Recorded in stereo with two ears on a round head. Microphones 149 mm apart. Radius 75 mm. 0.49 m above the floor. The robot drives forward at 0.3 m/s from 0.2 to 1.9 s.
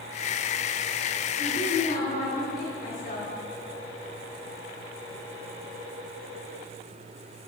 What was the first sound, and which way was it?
A woman speaking, 40° left (ahead or behind).